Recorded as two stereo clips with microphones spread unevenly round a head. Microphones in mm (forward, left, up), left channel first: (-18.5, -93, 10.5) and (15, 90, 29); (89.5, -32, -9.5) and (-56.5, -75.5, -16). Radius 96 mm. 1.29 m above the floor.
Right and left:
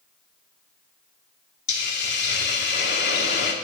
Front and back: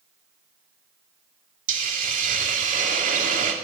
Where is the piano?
No piano in this recording.